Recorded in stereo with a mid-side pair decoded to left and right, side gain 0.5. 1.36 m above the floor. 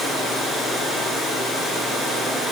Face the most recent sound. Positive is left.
No sound to turn to.